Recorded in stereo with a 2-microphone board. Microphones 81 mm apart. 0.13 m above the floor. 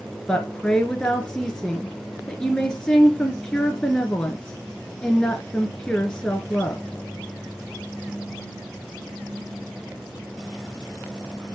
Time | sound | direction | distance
0.3 | a woman speaking | 10° left (ahead or behind) | 1.5 m